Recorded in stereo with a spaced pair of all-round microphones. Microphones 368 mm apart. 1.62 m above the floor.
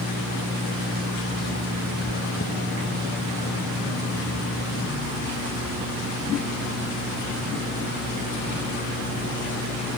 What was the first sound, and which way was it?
Chewing, 45° left (ahead or behind).